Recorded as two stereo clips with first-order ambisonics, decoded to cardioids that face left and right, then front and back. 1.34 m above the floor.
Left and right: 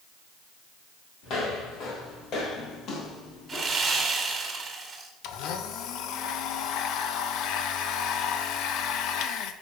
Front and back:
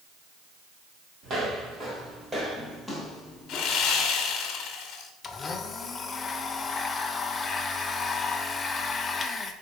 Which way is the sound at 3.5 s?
25° right.